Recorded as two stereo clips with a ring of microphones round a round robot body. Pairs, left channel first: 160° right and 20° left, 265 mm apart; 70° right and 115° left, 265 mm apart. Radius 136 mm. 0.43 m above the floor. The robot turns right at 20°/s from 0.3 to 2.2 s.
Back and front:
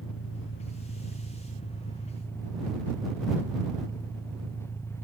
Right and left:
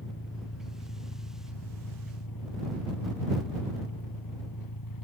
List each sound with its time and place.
0.0 s an engine running: 115° right; by 5.1 s 75° right